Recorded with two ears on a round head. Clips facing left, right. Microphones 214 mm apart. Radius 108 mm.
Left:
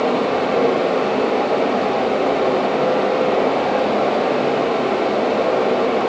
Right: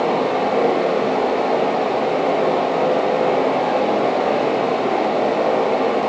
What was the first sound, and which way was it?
Only background noise.